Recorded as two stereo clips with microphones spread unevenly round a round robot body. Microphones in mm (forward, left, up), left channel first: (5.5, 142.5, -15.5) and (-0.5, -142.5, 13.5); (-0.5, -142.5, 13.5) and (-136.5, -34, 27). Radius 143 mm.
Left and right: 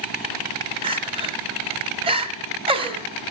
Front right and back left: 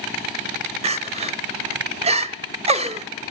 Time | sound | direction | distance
0.8 | crying | 165° right | 0.7 m